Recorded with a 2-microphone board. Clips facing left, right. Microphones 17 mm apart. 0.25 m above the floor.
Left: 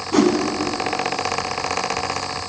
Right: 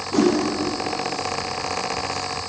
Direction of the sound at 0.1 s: 50° left (ahead or behind).